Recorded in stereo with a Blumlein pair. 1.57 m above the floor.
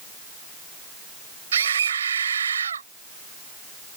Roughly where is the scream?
Ahead right.